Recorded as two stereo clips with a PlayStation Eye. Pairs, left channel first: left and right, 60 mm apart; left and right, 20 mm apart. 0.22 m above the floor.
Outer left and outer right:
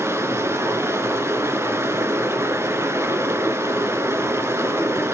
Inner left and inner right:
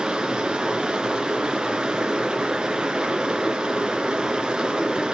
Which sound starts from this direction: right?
Running water, at 0.0 s.